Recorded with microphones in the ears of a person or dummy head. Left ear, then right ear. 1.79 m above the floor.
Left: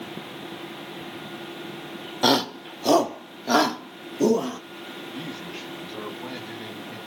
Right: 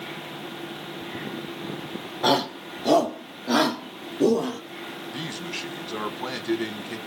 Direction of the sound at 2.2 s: 80° left.